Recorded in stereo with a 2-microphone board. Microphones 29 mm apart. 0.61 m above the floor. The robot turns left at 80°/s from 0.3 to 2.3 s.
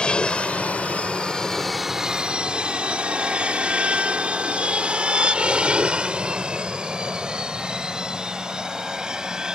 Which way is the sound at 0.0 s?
40° left (ahead or behind).